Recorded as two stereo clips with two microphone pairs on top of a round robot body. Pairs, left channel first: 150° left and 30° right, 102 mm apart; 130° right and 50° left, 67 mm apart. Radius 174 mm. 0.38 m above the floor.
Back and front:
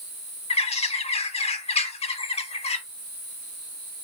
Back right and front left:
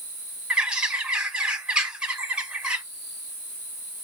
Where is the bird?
130° left, 0.9 m.